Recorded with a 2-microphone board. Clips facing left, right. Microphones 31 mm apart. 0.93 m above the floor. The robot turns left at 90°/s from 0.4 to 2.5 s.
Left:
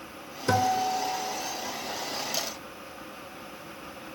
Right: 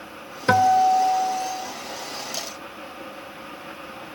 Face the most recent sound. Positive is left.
turn(degrees=115)